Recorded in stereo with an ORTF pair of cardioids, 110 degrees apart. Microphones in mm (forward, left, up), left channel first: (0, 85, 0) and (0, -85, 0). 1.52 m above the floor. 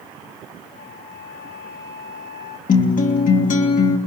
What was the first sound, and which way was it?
A flute, 50° left.